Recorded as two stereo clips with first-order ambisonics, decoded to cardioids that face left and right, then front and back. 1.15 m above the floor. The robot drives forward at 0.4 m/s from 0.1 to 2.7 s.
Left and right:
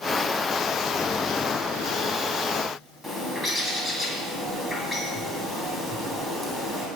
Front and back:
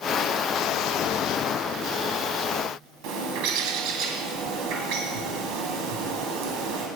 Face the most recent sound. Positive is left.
turn(degrees=180)